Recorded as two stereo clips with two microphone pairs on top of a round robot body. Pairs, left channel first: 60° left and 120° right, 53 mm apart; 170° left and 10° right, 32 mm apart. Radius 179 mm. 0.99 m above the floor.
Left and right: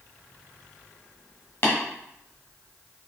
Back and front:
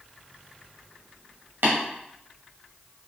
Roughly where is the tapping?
Ahead.